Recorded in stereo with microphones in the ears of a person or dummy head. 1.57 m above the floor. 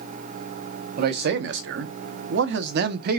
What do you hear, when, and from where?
1.0 s a man speaking: 60° right (ahead or behind), 1.3 m; by 3.2 s 55° right (ahead or behind), 1.3 m